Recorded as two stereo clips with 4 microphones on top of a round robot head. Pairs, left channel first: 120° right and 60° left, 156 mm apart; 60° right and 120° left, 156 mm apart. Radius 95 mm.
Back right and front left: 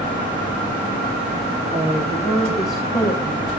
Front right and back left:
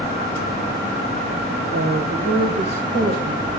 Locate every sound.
1.7 s a woman speaking: 120° left, 1.4 m; by 3.5 s 160° left, 2 m